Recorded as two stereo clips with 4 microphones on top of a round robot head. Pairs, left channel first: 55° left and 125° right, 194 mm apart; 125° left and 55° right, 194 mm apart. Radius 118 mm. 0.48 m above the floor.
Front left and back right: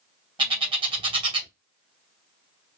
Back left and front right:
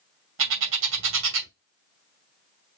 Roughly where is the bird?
Ahead right.